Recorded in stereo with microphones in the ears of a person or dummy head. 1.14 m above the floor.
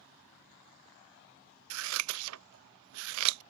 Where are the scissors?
75° right (ahead or behind).